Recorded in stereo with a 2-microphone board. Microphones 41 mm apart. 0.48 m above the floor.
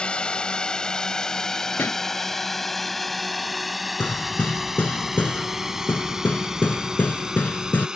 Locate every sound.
0.0 s a drone: 25° left (ahead or behind); by 8.0 s 15° right (ahead or behind)
1.8 s a pop: 70° left (ahead or behind)
4.0 s hammering: 50° left (ahead or behind)